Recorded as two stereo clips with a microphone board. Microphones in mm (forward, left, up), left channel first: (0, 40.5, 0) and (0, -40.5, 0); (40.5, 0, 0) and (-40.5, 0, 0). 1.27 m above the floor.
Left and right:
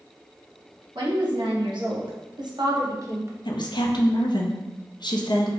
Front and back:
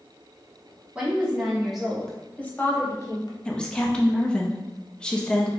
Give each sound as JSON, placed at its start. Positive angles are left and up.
{"t": 0.9, "sound": "a woman speaking", "azimuth_deg": -105, "distance_m": 1.3}
{"t": 3.5, "sound": "a woman speaking", "azimuth_deg": 80, "distance_m": 0.5}